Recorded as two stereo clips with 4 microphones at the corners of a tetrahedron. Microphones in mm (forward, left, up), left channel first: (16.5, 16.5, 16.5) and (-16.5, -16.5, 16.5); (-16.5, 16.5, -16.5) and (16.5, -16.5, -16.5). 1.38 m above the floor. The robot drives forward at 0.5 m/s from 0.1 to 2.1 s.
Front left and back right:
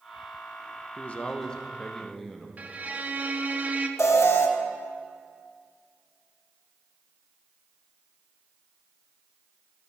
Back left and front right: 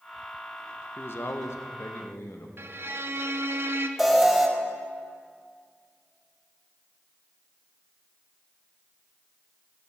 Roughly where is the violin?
Right.